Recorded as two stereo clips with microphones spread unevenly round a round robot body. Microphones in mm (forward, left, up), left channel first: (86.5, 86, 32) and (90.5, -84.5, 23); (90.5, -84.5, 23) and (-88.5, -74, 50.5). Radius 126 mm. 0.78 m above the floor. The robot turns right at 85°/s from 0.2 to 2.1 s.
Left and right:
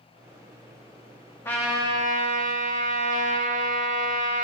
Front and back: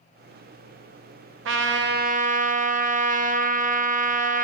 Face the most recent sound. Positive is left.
turn(degrees=-135)